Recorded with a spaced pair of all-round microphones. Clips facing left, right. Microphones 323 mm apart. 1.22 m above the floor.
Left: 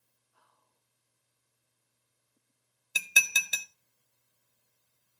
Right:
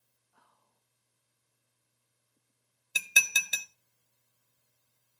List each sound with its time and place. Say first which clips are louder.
0.3 s whispering: right 2 dB; 70° right (ahead or behind), 1.8 m
3.0 s dishes clattering: even; centre (ahead or behind), 0.5 m